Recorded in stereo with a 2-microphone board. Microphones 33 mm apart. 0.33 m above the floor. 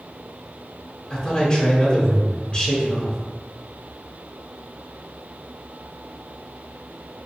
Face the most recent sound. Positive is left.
turn(degrees=30)  # may be behind; listen again after turning